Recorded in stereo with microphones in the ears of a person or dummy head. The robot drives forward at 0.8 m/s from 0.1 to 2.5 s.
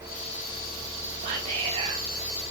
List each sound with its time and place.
1.2 s whispering: 40° right (ahead or behind), 1.9 m; by 2.0 s 30° right (ahead or behind), 2.5 m